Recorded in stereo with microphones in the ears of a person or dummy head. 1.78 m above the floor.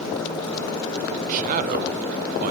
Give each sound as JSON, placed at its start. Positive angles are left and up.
{"t": 1.3, "sound": "a man speaking", "side_deg": -40, "distance_m": 0.6}